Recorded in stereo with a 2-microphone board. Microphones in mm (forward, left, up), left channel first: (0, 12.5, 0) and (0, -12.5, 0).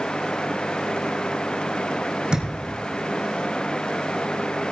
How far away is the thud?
About 4 m.